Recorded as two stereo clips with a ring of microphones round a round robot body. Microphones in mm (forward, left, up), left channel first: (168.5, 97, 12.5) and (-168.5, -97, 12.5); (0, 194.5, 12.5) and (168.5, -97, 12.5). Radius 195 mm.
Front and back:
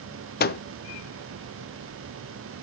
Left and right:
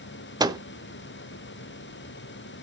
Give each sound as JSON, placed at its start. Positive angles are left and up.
{"t": 0.4, "sound": "a microwave", "azimuth_deg": 5, "distance_m": 0.6}